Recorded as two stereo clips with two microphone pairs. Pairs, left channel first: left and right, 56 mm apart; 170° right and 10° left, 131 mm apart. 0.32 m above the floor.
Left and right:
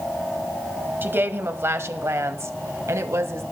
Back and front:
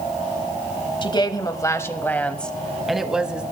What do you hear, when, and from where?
1.0 s a woman speaking: 130° right, 1.5 m; by 3.4 s 70° right, 1.9 m